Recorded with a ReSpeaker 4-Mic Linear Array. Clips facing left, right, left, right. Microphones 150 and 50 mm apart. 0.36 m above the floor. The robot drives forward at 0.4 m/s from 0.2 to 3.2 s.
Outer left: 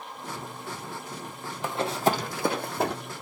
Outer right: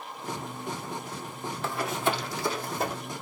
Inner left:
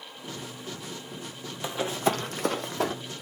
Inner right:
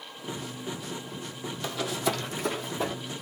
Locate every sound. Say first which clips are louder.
1.6 s running footsteps: outer left 4 dB, inner left 3 dB; 15° left (ahead or behind), 0.7 m; by 3.0 s 70° left (ahead or behind), 1.2 m